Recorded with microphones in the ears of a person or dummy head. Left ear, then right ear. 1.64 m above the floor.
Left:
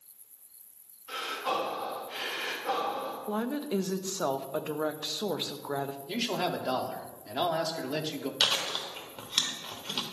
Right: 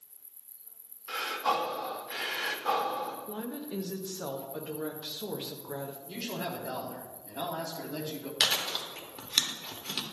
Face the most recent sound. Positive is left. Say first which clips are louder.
# even
turn(degrees=-10)  # may be behind; listen again after turning